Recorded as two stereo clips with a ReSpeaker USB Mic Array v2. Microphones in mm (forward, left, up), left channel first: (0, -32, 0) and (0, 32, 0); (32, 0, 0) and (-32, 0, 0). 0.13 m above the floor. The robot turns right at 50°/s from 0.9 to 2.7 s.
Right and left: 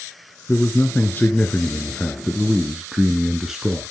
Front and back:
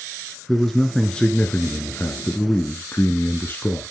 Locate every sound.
0.5 s a man speaking: 80° right, 1.2 m; by 3.9 s 10° left, 1.2 m